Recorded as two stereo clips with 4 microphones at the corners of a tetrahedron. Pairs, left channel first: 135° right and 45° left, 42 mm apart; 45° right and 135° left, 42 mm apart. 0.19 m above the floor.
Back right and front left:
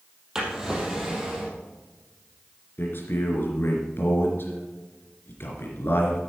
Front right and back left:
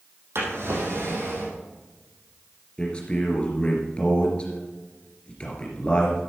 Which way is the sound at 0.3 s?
125° left.